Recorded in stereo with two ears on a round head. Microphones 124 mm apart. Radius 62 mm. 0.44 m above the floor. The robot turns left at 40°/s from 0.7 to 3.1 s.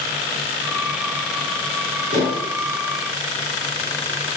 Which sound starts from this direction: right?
Dishes clattering, at 2.1 s.